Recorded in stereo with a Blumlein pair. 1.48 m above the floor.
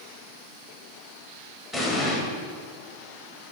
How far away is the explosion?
About 2 m.